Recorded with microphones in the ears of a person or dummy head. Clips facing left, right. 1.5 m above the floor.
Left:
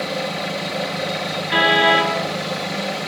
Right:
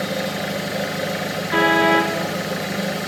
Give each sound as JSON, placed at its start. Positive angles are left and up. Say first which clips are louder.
{"t": 0.0, "sound": "an engine running", "louder": "even", "side_deg": -10, "distance_m": 1.4}
{"t": 1.5, "sound": "a car horn", "louder": "right 1 dB", "side_deg": 50, "distance_m": 5.0}